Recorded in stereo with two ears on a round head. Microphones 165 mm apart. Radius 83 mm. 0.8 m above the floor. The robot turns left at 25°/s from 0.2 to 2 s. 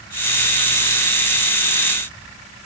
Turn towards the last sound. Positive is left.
No sound to turn to.